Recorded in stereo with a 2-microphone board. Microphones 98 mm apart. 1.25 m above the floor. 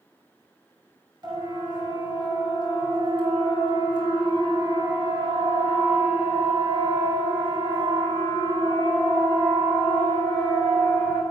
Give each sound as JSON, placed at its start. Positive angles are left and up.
{"t": 1.2, "sound": "a siren", "side_deg": -45, "distance_m": 6.0}